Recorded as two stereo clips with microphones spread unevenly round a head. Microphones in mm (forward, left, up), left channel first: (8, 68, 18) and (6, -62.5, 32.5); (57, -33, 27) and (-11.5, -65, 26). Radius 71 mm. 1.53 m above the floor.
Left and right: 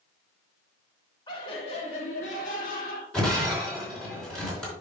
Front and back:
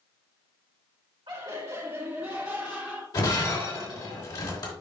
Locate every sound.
1.3 s laughter: 150° left, 2 m; by 3.0 s 115° left, 3.5 m
3.1 s breaking glass: 5° left, 4 m